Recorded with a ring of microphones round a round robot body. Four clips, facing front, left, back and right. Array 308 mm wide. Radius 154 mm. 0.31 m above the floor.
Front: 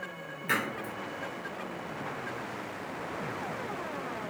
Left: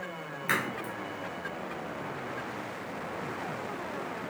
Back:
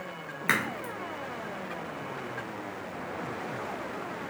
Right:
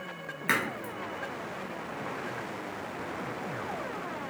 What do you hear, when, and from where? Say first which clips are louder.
0.5 s a crack: right 1 dB, back 2 dB; 160° right, 0.8 m